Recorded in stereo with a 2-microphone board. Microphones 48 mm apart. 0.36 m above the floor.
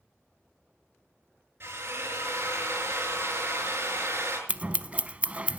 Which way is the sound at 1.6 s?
50° right (ahead or behind).